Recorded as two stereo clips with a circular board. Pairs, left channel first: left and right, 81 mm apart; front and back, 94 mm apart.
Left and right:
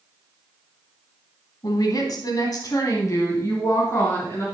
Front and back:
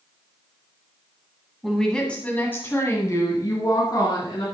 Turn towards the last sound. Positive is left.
turn(degrees=30)